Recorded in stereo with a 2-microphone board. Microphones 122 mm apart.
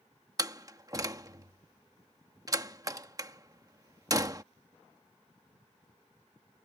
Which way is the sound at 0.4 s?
30° right (ahead or behind).